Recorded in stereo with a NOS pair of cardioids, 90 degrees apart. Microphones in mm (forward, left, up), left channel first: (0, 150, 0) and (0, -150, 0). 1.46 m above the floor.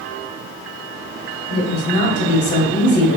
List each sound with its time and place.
1.5 s a woman speaking: 65° left, 1.4 m